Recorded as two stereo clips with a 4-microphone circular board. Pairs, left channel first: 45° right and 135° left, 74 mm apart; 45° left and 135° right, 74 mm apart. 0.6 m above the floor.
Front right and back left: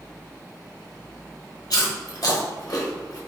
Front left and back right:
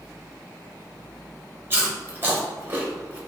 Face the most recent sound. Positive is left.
turn(degrees=-75)